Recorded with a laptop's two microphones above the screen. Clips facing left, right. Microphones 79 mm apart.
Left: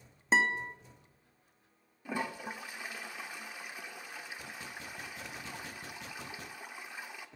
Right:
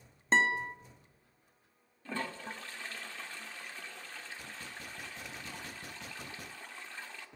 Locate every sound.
0.3 s a guitar: 5° left (ahead or behind), 1.0 m
2.0 s a toilet flushing: 15° left (ahead or behind), 0.7 m